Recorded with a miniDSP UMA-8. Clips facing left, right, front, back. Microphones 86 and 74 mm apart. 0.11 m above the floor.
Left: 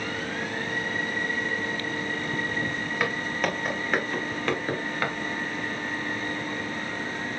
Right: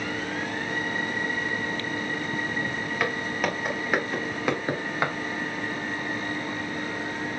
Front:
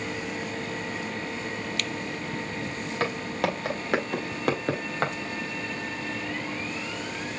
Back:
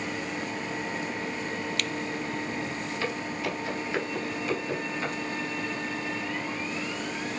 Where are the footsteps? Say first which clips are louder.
Even, front 6 dB; straight ahead, 3 m; by 5.1 s 25° right, 2 m.